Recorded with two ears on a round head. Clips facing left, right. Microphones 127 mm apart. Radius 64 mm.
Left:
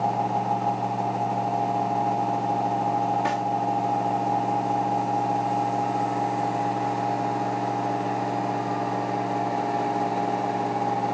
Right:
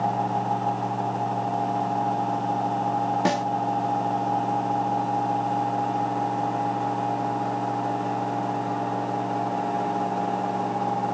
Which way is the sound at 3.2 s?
45° right (ahead or behind).